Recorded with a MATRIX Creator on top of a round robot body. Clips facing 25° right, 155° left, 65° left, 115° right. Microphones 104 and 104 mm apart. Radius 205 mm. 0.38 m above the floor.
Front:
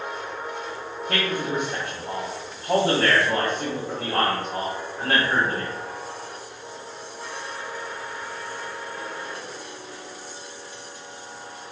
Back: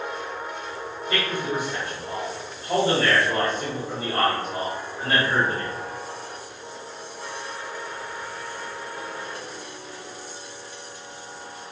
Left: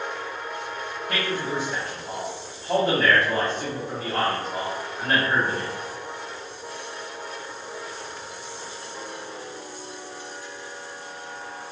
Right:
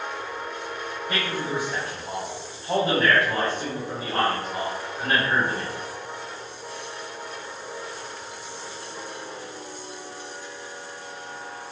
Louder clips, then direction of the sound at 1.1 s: Front 1 dB, left 1 dB; 35° right.